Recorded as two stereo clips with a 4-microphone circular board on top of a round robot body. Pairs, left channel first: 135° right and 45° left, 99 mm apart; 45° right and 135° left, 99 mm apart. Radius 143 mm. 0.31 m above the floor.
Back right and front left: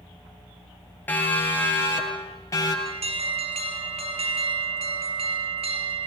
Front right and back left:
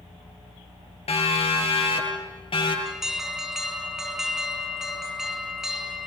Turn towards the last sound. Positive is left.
turn(degrees=50)